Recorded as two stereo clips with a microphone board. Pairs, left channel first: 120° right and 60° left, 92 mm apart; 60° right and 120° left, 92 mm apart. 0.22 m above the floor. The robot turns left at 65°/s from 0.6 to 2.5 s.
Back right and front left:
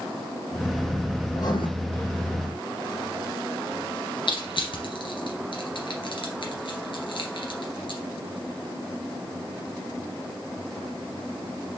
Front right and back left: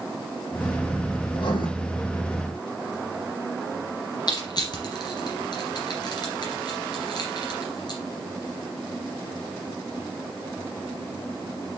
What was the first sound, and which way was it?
Writing, 70° right.